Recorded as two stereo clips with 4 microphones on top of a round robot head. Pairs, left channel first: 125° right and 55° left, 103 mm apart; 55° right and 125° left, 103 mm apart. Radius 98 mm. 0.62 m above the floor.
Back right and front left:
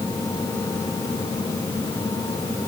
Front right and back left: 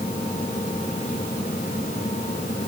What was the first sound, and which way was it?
Only background noise.